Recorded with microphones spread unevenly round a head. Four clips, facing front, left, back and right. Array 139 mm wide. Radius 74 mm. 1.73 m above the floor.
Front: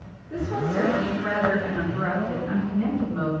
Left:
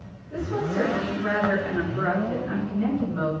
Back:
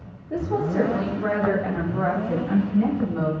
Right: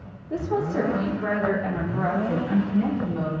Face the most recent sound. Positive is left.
turn(degrees=-125)